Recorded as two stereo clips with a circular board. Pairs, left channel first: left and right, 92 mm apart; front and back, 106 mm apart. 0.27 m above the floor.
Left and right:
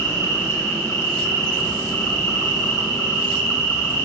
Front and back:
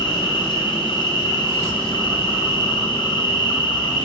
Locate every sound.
0.0 s an insect: 30° left, 4 m